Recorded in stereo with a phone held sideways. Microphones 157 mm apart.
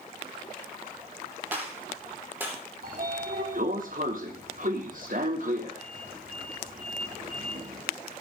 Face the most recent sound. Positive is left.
turn(degrees=-60)  # may be behind; listen again after turning